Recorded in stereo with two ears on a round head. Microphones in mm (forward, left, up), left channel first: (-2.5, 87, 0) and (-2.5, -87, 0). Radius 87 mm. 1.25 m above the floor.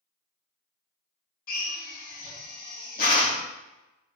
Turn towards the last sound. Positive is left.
turn(degrees=50)  # may be behind; listen again after turning